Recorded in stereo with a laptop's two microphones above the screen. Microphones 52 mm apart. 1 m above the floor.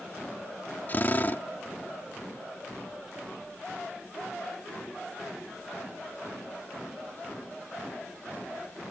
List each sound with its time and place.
0.9 s a drill: 35° left (ahead or behind)